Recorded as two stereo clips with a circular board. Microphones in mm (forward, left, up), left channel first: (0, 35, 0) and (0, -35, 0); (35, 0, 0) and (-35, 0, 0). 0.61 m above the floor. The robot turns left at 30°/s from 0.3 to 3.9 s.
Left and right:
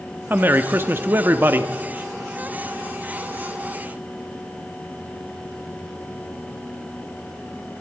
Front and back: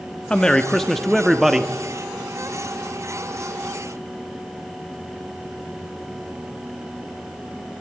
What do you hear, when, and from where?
0.3 s a man speaking: 65° right, 0.7 m; by 1.7 s 105° right, 0.7 m